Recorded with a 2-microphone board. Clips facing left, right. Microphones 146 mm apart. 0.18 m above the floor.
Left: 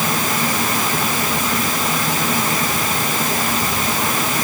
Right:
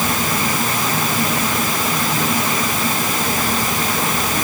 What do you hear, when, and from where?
Only background noise.